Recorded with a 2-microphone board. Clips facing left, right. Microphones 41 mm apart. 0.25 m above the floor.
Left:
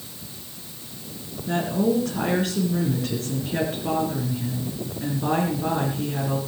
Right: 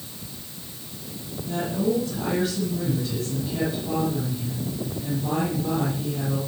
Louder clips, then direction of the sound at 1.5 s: Left 2 dB; 65° left (ahead or behind).